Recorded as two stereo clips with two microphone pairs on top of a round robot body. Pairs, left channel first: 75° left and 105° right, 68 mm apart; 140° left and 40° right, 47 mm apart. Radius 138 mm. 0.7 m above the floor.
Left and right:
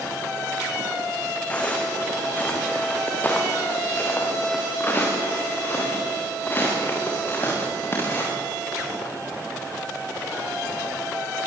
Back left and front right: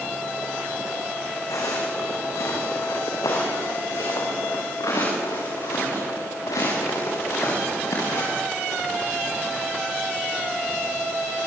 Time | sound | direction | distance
1.5 | footsteps | 150° left | 4.5 m